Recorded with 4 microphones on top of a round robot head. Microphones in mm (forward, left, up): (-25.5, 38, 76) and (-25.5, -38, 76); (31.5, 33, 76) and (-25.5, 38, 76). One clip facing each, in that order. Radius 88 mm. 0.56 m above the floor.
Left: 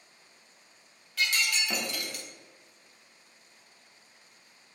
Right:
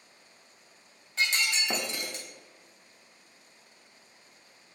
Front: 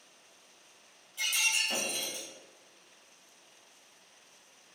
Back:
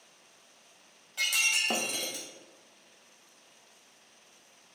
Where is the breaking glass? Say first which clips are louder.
Right 1 dB, back 2 dB; 155° right, 0.7 m.